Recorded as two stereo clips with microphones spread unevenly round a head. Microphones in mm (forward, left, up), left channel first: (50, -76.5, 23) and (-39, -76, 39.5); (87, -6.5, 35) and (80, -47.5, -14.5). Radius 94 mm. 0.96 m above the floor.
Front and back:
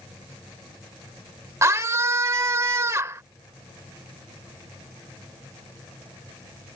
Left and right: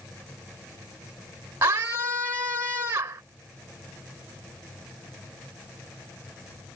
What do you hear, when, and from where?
1.6 s a scream: 125° right